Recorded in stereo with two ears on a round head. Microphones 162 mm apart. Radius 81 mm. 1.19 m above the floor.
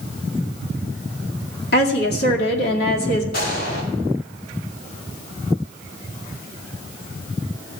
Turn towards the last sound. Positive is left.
turn(degrees=55)  # may be behind; listen again after turning